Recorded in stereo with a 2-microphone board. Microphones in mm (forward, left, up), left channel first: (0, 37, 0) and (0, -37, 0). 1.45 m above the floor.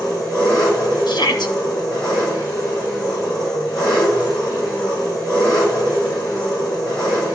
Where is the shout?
70° left (ahead or behind), 1.3 m.